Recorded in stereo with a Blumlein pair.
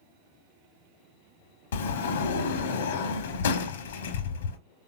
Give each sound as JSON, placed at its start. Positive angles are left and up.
{"t": 1.7, "sound": "a sliding door", "azimuth_deg": 60, "distance_m": 0.7}